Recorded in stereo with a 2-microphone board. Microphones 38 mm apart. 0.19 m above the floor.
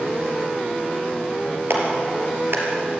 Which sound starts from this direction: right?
A clap, at 1.7 s.